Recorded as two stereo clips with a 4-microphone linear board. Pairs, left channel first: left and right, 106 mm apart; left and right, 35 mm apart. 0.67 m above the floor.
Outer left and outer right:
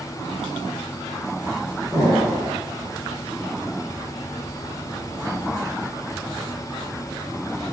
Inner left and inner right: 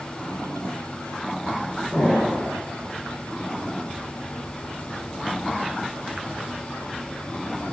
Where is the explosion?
20° right (ahead or behind), 1.8 m.